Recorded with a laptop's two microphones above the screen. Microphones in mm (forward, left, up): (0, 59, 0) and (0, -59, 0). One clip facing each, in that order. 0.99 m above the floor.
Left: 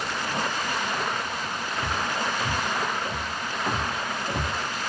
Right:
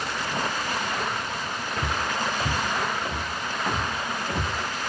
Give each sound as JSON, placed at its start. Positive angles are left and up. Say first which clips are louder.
{"t": 1.8, "sound": "footsteps", "louder": "right 1 dB", "side_deg": -45, "distance_m": 1.3}